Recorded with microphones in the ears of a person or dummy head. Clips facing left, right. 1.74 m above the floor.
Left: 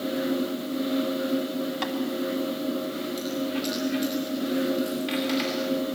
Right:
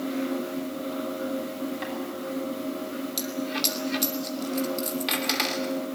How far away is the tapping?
About 3 m.